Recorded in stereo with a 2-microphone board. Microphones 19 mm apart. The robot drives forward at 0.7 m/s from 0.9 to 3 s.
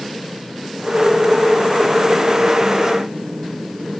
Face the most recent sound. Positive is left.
No sound to turn to.